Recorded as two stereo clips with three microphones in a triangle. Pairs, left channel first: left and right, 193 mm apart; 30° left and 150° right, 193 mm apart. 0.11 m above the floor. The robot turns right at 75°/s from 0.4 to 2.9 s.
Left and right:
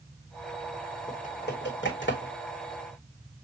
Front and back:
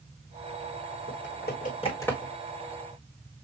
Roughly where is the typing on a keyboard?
Ahead left.